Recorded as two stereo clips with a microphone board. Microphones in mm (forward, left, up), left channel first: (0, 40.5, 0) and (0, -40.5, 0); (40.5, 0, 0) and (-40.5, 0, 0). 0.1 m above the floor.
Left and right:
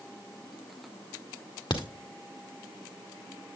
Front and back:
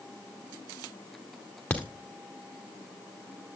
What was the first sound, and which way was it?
A crack, 75° left.